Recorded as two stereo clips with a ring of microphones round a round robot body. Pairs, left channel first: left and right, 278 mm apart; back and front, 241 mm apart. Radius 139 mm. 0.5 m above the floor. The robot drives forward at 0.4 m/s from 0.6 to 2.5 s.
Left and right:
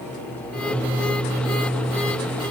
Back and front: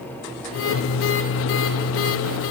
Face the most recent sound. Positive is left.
No sound to turn to.